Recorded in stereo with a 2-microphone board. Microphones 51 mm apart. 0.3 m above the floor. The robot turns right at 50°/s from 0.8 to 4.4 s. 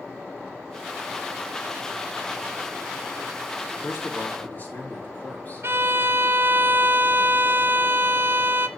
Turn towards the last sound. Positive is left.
turn(degrees=-50)  # may be behind; listen again after turning